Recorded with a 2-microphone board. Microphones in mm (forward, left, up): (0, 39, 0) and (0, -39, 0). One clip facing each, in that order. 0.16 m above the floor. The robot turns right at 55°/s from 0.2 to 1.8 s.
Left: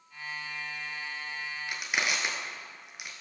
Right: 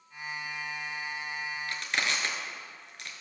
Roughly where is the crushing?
Centre.